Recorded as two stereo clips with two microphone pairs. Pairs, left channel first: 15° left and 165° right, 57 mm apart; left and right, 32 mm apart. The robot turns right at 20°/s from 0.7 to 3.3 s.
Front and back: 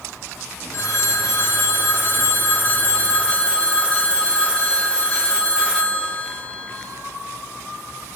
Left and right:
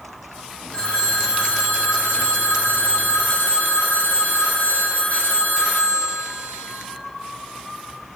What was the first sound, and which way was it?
A phone ringing, 30° left.